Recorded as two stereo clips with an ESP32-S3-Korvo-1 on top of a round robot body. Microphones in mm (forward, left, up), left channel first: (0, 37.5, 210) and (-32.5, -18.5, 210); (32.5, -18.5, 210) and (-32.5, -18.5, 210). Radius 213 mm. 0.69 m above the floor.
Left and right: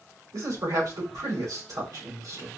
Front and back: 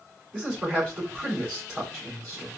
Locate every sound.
0.3 s a man speaking: 105° right, 3.5 m